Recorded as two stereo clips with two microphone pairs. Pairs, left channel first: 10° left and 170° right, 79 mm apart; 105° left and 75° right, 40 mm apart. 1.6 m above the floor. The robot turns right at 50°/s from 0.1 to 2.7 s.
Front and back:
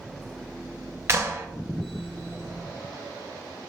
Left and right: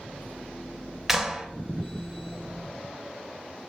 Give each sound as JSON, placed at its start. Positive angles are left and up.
{"t": 1.1, "sound": "a clap", "azimuth_deg": -155, "distance_m": 0.7}